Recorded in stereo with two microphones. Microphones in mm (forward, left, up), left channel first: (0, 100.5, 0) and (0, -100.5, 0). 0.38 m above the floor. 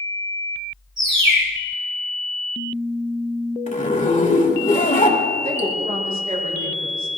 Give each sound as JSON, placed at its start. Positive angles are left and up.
{"t": 1.0, "sound": "a bird", "side_deg": -75, "distance_m": 5.0}
{"t": 3.7, "sound": "a zipper", "side_deg": 35, "distance_m": 1.6}
{"t": 5.4, "sound": "a woman speaking", "side_deg": -40, "distance_m": 3.5}